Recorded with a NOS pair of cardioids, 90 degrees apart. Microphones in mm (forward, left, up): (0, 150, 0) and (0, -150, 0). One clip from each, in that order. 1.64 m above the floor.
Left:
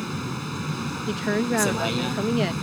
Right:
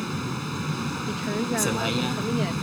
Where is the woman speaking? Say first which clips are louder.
Left 5 dB; 40° left.